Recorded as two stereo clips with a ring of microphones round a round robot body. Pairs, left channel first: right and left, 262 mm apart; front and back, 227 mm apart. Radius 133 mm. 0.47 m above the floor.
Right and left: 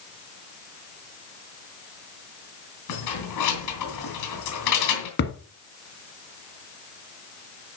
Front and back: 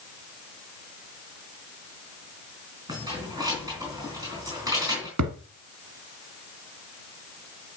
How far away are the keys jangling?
About 3.5 m.